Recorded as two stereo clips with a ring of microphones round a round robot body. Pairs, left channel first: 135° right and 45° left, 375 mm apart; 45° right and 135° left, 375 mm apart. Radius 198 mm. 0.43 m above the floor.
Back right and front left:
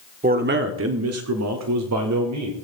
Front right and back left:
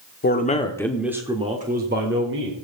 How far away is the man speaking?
About 1.3 m.